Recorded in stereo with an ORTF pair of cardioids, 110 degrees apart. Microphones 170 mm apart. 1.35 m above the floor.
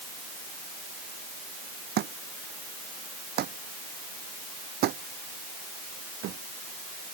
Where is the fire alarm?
I don't hear a fire alarm.